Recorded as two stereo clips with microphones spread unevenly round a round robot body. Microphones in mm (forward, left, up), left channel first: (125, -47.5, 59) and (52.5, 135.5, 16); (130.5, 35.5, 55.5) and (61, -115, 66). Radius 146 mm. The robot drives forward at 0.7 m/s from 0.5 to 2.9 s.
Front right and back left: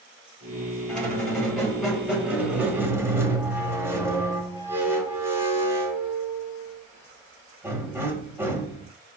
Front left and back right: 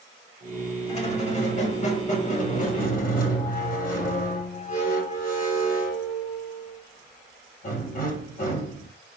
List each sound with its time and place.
0.9 s a squeak: 15° left, 3 m; by 8.9 s 30° left, 1.5 m